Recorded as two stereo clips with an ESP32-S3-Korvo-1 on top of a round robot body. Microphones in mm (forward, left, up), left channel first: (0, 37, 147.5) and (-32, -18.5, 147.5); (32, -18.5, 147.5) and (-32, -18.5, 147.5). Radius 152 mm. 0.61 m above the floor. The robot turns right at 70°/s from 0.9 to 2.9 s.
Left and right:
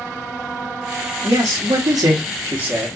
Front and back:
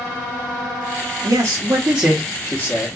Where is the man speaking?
160° right, 1.4 m; by 2.9 s 45° right, 1.4 m.